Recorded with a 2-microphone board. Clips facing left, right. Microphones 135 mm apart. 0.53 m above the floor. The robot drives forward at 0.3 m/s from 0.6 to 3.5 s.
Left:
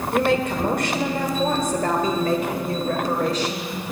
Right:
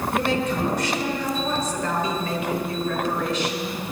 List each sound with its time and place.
0.1 s a woman speaking: 55° left (ahead or behind), 1.4 m; by 3.8 s 40° left (ahead or behind), 1.9 m